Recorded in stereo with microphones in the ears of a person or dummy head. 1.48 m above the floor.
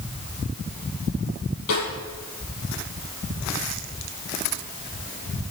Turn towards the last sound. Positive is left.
turn(degrees=70)  # may be behind; listen again after turning